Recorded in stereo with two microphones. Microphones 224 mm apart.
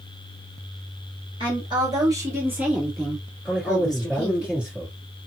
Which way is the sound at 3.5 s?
5° right (ahead or behind).